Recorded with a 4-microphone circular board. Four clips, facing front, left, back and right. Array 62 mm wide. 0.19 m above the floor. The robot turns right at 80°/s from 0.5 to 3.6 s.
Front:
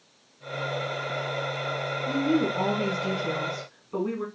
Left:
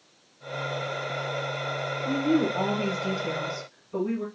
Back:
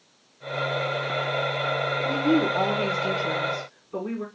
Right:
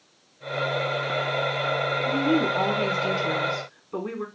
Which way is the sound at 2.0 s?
175° left.